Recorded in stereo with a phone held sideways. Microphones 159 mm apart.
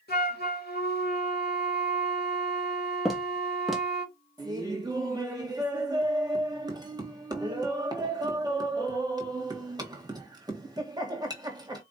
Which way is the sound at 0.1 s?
80° left.